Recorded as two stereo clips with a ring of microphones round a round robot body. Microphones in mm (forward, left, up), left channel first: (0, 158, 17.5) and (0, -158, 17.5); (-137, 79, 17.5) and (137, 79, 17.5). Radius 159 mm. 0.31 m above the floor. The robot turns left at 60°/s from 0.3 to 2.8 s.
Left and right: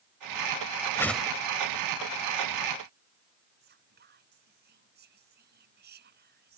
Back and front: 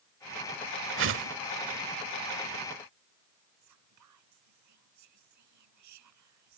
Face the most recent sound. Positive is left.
turn(degrees=-30)